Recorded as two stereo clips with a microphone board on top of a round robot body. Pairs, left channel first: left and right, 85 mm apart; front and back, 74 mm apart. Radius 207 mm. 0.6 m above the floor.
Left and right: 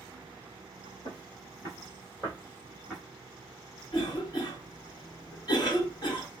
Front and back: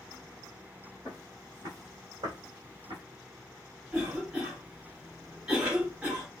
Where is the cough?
110° left, 1.8 m.